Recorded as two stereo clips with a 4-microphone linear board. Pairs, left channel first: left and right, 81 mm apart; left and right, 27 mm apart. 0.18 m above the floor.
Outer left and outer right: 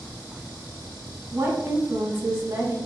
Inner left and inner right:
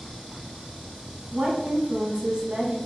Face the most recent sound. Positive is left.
turn(degrees=-30)  # may be behind; listen again after turning